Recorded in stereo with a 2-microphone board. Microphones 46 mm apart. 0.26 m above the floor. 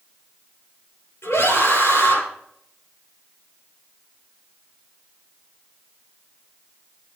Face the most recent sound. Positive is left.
turn(degrees=75)  # may be behind; listen again after turning